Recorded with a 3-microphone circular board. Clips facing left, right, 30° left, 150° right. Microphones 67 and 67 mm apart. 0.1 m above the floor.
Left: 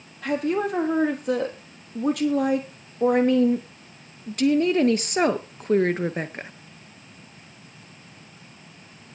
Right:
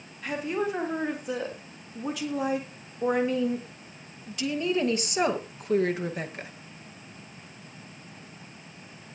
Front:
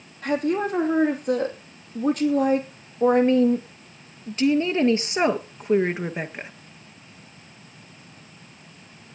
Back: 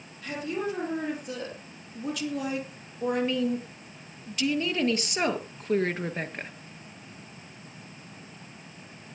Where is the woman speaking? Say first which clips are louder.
Left 5 dB, front 8 dB; 70° left, 4 m; by 6.5 s 105° left, 1.6 m.